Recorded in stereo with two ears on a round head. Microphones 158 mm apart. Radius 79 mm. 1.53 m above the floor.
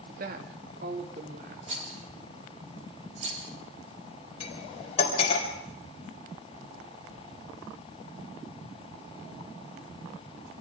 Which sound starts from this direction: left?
Cutlery clinking, at 4.4 s.